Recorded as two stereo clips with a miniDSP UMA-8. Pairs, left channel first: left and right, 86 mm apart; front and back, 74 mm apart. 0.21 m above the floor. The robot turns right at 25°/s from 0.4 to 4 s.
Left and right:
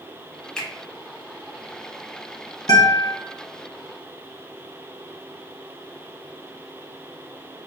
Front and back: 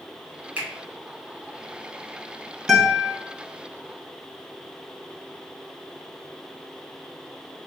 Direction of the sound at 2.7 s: 90° left.